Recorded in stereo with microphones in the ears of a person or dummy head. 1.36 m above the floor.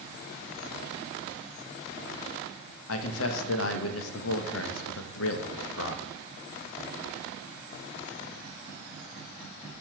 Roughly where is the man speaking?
Left.